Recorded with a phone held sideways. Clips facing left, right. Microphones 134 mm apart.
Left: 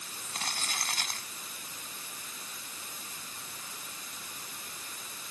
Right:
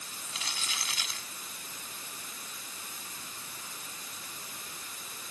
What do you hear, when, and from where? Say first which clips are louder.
0.2 s crumpling: left 4 dB; 45° left (ahead or behind)